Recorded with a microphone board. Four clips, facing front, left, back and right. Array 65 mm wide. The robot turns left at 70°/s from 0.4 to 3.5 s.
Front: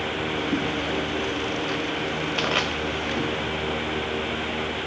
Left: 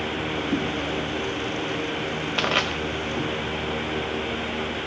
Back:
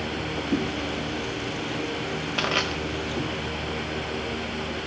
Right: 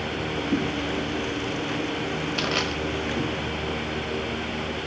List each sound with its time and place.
2.4 s crushing: 95° left, 1.2 m; by 2.7 s 70° left, 1.2 m